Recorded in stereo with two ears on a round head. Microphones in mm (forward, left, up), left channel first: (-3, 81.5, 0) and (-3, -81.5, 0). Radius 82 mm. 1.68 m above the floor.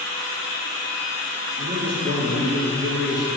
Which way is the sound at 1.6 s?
35° right (ahead or behind).